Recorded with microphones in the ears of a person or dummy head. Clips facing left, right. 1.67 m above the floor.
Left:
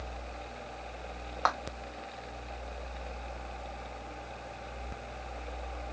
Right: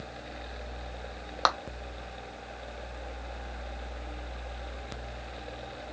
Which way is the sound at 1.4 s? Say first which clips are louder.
Right 2 dB; 50° right (ahead or behind).